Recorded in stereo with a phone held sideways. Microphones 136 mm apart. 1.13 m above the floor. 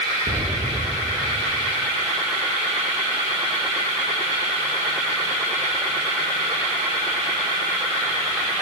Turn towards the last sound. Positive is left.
turn(degrees=-75)  # may be behind; listen again after turning